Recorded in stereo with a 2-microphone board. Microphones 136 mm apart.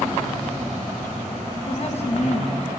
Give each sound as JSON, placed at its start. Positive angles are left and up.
{"t": 1.7, "sound": "a woman speaking", "side_deg": 45, "distance_m": 1.3}